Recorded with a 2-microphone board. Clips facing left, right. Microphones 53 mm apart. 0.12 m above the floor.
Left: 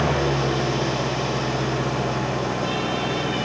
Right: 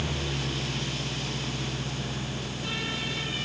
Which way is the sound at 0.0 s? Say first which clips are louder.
Left 11 dB; 75° left (ahead or behind).